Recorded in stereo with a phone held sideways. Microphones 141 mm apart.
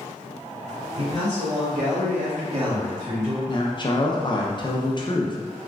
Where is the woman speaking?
35° left (ahead or behind), 0.5 m.